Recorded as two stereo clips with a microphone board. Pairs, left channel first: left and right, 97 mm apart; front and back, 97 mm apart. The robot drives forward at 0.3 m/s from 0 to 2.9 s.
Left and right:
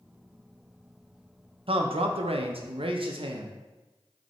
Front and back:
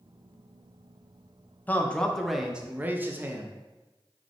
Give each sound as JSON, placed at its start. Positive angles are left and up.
{"t": 1.7, "sound": "a man speaking", "azimuth_deg": -70, "distance_m": 0.6}